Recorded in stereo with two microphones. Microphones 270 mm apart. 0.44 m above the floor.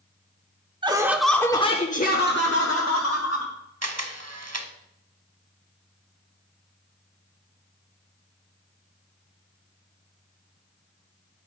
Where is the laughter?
20° right (ahead or behind), 0.9 m; by 3.5 s 60° left (ahead or behind), 1.8 m.